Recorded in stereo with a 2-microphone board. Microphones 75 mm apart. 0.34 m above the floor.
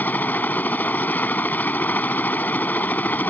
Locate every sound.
0.0 s a helicopter: 25° left (ahead or behind)